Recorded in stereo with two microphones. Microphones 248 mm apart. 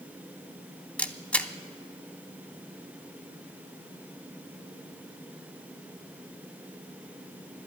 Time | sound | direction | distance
1.0 | a camera shutter | 5° left (ahead or behind) | 0.6 m